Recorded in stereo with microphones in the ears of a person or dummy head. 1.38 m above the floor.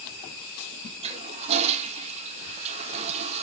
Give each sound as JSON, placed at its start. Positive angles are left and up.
{"t": 1.0, "sound": "a toilet flushing", "side_deg": -35, "distance_m": 0.8}